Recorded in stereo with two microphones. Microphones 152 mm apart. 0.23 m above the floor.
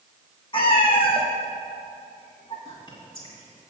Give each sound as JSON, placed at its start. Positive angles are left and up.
{"t": 0.5, "sound": "a cat meowing", "side_deg": 35, "distance_m": 2.0}
{"t": 2.6, "sound": "whispering", "side_deg": 30, "distance_m": 1.9}